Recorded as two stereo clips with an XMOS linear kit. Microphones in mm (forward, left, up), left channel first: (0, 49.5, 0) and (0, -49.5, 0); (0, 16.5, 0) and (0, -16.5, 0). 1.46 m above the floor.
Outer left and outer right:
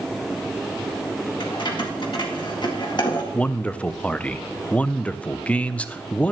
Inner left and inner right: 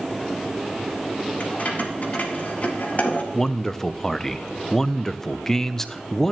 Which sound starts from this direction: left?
Keys jangling, at 1.4 s.